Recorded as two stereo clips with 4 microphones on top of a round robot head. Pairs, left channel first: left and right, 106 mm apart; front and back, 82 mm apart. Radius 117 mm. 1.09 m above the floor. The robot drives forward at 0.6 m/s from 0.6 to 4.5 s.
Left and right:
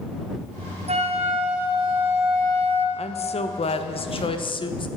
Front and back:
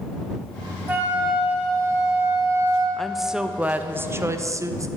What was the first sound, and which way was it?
A flute, 110° right.